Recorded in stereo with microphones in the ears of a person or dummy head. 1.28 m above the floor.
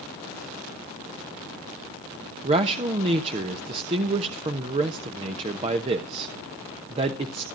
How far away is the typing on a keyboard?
I don't hear typing on a keyboard.